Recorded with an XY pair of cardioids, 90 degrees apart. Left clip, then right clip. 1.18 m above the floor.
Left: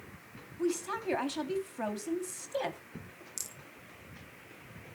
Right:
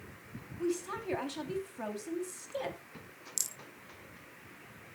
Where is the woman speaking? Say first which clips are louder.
Left 2 dB; 30° left, 2.5 m.